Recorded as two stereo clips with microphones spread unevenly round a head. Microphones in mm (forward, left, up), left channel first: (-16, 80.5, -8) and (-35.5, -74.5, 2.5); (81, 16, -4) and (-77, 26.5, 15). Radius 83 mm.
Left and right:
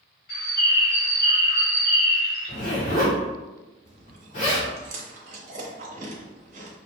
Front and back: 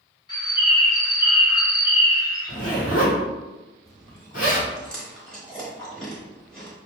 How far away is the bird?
About 1.4 m.